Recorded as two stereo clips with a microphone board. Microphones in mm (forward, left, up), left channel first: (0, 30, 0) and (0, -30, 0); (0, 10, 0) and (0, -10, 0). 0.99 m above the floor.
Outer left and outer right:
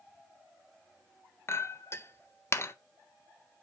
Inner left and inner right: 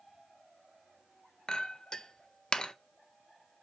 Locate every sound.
1.5 s a clink: 45° left (ahead or behind), 0.5 m